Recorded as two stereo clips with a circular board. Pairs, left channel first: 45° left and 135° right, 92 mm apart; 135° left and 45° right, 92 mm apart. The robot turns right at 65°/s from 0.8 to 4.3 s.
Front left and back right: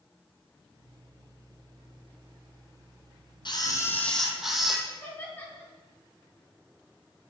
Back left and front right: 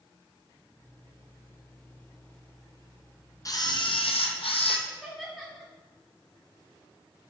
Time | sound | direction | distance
3.5 | a camera shutter | 80° left | 1.0 m
4.9 | laughter | 40° left | 1.4 m